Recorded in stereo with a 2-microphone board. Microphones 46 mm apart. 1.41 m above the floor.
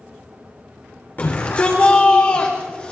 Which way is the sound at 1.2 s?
40° left (ahead or behind).